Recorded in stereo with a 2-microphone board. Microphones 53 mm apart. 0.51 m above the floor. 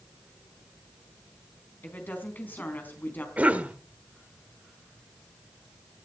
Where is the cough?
30° right (ahead or behind), 1.8 m.